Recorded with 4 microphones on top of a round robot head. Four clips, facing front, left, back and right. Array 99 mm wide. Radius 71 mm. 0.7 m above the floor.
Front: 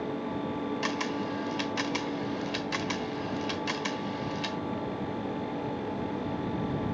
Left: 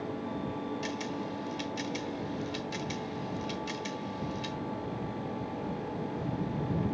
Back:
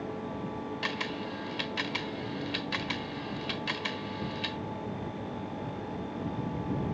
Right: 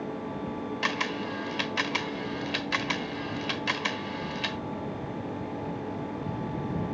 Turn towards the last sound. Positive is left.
turn(degrees=-75)